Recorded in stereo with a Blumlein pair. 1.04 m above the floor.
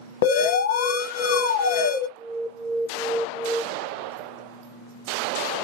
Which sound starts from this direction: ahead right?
An alarm, at 2.2 s.